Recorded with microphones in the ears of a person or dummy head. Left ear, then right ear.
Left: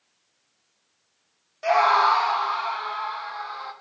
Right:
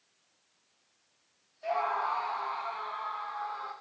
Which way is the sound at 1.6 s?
40° left (ahead or behind).